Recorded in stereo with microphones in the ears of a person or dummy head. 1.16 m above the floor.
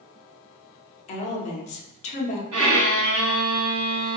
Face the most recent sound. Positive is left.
turn(degrees=-80)